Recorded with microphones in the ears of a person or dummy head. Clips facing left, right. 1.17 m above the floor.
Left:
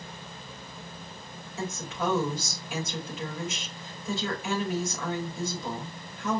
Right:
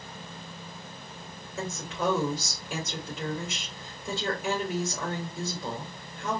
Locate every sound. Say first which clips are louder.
1.6 s a woman speaking: even; 45° right (ahead or behind), 3 m